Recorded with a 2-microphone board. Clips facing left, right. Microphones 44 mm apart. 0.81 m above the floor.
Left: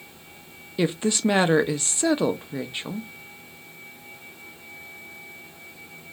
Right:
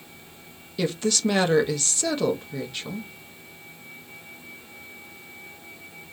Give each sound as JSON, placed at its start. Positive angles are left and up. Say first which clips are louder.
{"t": 0.8, "sound": "a woman speaking", "louder": "left 2 dB", "side_deg": 20, "distance_m": 0.5}